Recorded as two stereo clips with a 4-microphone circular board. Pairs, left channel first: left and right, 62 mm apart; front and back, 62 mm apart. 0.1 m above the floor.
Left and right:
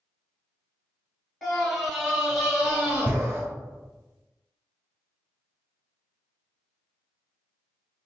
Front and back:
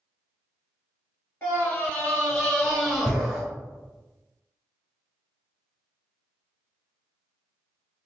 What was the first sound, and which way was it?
A scream, 5° left.